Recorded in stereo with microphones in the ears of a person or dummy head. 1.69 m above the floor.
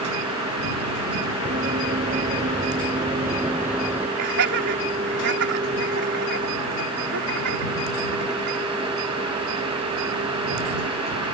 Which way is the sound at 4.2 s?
70° right (ahead or behind).